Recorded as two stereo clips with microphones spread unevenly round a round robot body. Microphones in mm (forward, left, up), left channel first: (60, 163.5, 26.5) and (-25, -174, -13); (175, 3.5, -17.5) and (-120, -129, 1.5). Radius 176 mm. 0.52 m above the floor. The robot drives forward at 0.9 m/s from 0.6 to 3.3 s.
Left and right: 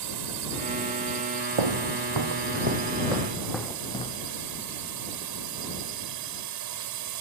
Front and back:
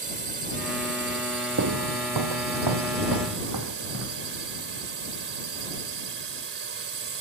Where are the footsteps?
110° right; by 4.2 s 150° left.